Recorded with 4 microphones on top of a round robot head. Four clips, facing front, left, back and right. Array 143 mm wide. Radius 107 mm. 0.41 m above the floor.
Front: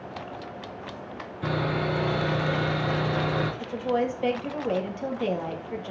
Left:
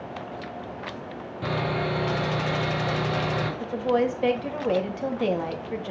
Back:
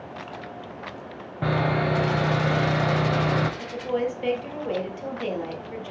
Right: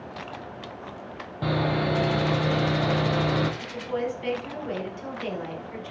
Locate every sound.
1.4 s sawing: 165° right, 2 m
3.6 s a woman speaking: 80° left, 2.5 m